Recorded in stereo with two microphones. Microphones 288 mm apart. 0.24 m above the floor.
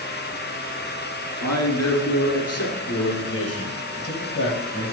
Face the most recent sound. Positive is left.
turn(degrees=45)  # may be behind; listen again after turning